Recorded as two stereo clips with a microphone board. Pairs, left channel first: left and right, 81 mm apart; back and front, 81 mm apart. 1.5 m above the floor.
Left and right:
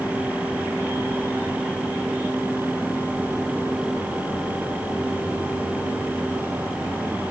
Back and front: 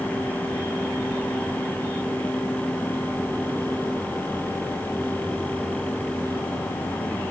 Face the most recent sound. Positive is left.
No sound to turn to.